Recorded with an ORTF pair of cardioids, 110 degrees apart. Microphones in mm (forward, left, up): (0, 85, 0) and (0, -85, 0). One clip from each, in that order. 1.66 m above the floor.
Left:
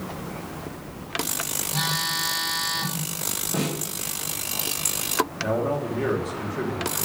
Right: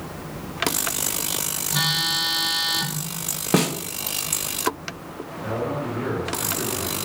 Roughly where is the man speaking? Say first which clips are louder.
Left 2 dB; ahead left.